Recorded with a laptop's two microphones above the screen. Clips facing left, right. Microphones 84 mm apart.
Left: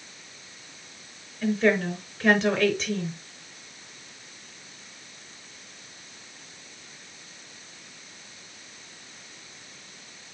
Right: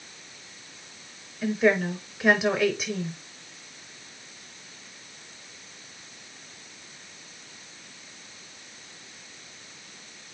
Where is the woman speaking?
5° right (ahead or behind), 5 m.